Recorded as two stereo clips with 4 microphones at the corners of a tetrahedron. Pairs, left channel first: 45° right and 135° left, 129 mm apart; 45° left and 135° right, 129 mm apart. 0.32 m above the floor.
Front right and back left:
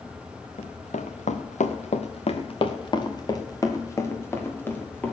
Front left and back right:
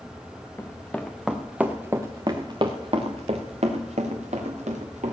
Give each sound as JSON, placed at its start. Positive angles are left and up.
{"t": 0.6, "sound": "running footsteps", "azimuth_deg": -25, "distance_m": 1.8}